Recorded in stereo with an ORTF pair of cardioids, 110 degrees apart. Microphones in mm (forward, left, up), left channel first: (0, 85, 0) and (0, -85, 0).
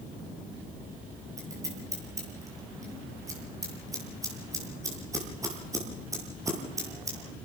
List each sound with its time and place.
1.4 s scissors: 20° right, 9 m